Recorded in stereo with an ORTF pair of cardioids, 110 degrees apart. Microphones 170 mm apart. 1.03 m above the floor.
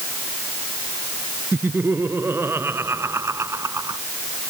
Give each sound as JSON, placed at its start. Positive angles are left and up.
{"t": 1.5, "sound": "laughter", "azimuth_deg": -10}